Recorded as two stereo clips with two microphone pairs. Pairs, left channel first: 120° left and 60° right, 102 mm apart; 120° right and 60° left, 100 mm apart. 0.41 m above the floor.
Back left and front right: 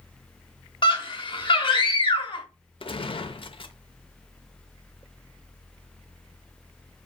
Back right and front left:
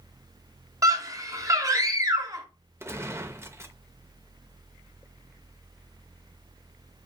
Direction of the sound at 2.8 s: 115° left.